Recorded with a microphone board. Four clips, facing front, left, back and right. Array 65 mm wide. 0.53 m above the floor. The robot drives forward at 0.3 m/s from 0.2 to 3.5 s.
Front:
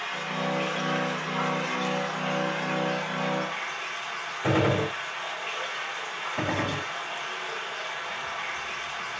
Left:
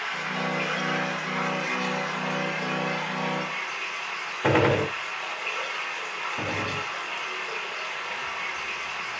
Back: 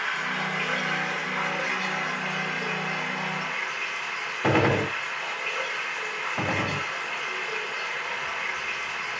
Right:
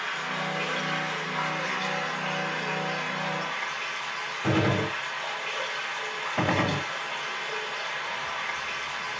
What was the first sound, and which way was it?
Running water, 170° left.